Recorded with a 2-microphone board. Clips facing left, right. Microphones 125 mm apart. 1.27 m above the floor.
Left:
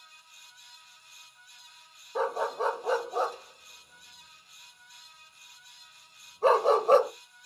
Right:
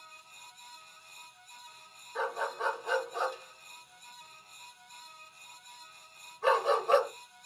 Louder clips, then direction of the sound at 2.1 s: Left 5 dB; 35° left (ahead or behind).